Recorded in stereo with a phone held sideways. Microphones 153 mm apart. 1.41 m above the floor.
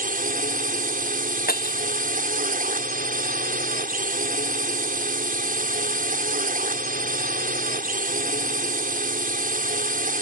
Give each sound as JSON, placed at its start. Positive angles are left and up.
{"t": 0.0, "sound": "a drone", "side_deg": -60}
{"t": 1.5, "sound": "breaking glass", "side_deg": 65}